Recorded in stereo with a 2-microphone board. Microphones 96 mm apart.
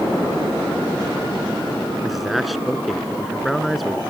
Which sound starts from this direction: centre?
A man speaking, at 2.0 s.